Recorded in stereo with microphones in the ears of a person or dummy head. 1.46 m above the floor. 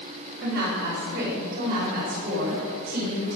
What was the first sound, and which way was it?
A woman speaking, 60° right (ahead or behind).